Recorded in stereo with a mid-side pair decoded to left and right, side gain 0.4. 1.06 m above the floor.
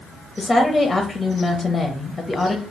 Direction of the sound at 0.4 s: 20° left.